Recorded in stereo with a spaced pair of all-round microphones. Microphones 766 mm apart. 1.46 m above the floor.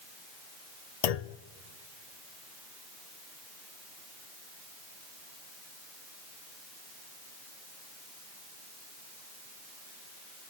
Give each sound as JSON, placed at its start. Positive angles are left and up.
{"t": 1.0, "sound": "a clunk", "side_deg": 60, "distance_m": 0.6}